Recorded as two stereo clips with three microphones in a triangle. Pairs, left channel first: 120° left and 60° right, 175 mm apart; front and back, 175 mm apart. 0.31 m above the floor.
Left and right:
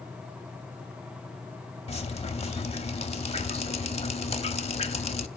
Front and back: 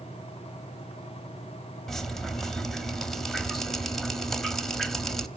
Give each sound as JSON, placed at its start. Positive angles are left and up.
{"t": 1.9, "sound": "dripping", "azimuth_deg": 85, "distance_m": 1.1}